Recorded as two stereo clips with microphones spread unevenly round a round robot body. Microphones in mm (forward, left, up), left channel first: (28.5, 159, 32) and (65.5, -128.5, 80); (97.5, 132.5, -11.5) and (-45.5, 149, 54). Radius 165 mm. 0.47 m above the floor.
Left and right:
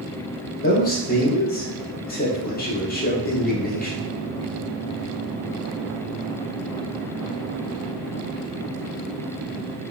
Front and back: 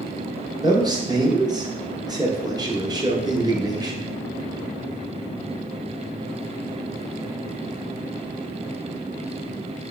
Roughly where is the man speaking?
Left.